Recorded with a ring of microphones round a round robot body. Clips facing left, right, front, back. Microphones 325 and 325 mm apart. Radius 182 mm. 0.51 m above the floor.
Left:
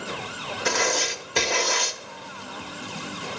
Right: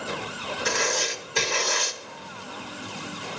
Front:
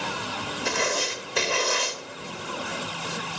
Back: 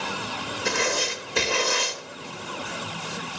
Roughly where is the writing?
Behind left.